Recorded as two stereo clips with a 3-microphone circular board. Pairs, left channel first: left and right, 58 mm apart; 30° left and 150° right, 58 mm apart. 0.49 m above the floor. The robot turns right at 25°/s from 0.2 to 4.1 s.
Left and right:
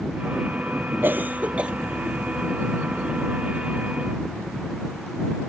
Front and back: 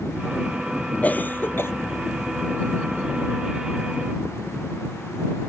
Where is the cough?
35° right; by 1.7 s 20° right.